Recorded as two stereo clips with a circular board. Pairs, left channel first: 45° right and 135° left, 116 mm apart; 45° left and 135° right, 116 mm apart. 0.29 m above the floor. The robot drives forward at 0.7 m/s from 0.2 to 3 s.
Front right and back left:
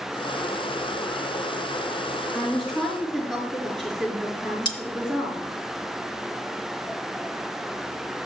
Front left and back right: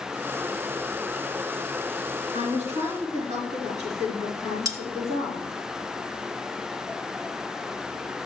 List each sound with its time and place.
2.3 s a woman speaking: 130° right, 5 m
4.7 s cutlery clinking: 80° right, 1.1 m